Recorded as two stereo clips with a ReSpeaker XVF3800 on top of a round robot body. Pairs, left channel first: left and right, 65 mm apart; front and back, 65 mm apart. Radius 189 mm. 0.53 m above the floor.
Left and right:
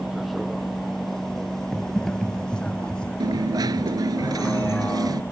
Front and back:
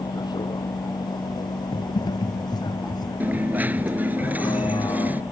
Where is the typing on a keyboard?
Straight ahead.